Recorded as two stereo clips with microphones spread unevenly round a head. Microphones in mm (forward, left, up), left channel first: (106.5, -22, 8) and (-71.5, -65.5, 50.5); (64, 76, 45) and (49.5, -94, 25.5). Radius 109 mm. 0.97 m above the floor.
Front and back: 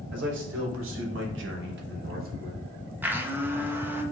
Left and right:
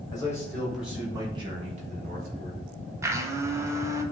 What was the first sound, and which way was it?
A man speaking, 155° left.